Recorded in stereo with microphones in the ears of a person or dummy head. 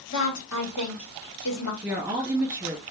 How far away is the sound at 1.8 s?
About 1.5 m.